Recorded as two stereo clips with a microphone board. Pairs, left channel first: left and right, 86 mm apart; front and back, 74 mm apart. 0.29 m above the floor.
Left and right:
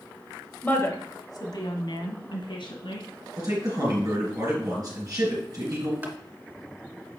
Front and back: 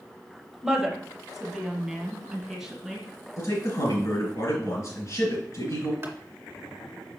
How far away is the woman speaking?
About 0.9 m.